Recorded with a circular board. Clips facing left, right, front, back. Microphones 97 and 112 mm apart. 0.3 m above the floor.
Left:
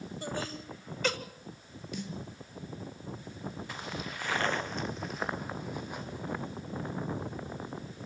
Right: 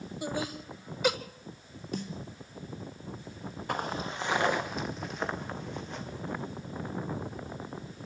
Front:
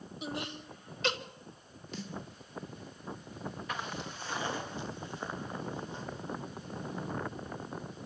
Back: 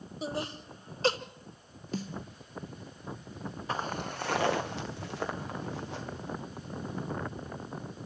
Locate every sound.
0.2 s laughter: 160° right, 1.3 m
1.9 s a snare drum: 135° right, 2.5 m
3.7 s footsteps: 125° right, 1.3 m; by 6.4 s 165° left, 4.5 m